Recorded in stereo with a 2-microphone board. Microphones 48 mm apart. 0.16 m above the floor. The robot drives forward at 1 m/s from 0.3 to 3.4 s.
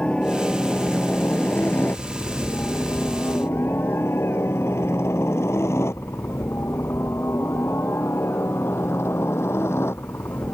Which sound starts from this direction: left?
A helicopter, at 0.0 s.